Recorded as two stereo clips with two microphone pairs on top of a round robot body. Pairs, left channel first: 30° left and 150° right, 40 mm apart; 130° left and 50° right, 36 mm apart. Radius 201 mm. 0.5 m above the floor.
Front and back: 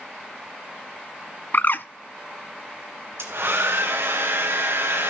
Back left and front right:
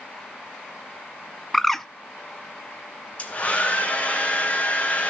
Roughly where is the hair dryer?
Behind.